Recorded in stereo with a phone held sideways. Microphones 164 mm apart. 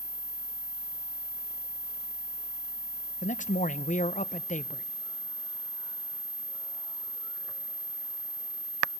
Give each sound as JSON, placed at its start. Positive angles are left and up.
{"t": 3.2, "sound": "a man speaking", "side_deg": 50, "distance_m": 0.8}